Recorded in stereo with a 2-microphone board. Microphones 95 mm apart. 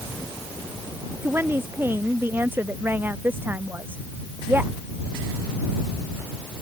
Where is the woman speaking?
25° right (ahead or behind); by 4.7 s 20° right (ahead or behind).